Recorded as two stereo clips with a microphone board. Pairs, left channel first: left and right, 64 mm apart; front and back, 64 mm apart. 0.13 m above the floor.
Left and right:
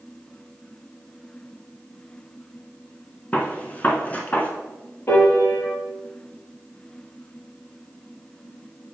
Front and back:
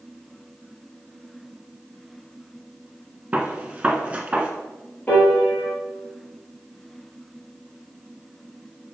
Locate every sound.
3.3 s a gunshot: 130° left, 1.1 m
5.1 s a piano: 55° left, 2.5 m